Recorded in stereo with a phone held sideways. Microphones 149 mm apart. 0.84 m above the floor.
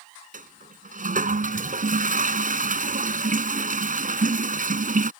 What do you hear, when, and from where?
0.3 s a toilet flushing: 65° right (ahead or behind)